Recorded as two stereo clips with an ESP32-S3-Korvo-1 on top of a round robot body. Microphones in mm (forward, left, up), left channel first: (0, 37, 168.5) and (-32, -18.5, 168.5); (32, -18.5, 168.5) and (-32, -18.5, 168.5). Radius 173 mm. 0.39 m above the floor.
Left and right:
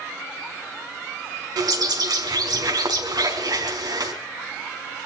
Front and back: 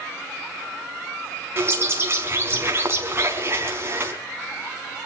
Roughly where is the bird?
Behind right.